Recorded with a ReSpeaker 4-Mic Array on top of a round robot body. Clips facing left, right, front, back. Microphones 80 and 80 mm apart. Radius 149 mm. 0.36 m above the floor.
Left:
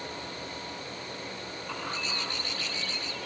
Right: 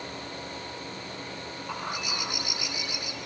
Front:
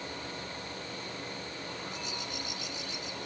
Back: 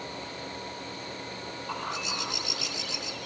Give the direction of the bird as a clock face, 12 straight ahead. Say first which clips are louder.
Right 2 dB, back 6 dB; 6 o'clock.